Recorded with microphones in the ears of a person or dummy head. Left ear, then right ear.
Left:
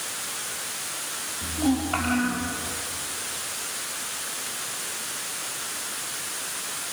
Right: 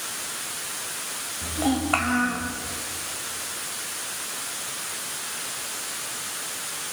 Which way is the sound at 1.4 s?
40° right (ahead or behind).